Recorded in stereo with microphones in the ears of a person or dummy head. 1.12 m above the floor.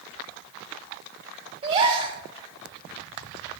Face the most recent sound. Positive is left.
turn(degrees=-30)  # may be behind; listen again after turning